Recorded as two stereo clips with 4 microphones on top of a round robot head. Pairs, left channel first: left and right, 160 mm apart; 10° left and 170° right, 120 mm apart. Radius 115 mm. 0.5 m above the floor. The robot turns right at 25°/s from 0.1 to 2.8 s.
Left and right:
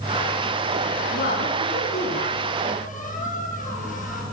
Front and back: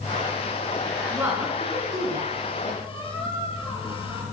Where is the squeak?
55° left, 7.5 m.